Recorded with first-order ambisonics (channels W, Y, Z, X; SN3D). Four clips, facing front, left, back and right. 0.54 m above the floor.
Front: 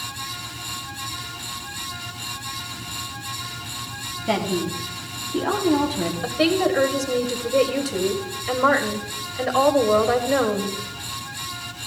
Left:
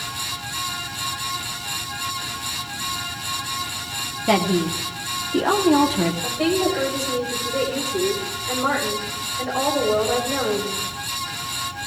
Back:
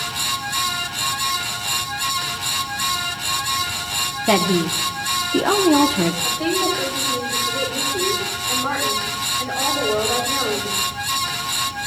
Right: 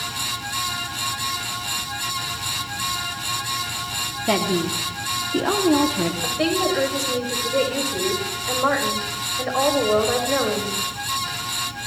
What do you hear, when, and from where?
4.3 s a woman speaking: 175° left, 0.7 m
6.2 s a woman speaking: 20° right, 2 m